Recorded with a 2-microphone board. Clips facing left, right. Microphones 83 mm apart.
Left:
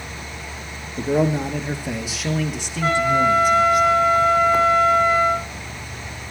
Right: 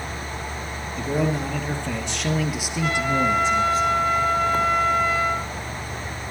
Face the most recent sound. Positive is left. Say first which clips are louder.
# left 5 dB
turn(degrees=40)  # may be behind; listen again after turning